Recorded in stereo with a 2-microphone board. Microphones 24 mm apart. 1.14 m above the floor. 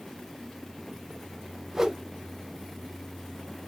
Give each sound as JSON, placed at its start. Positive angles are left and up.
{"t": 1.7, "sound": "a whoosh", "side_deg": -15, "distance_m": 0.6}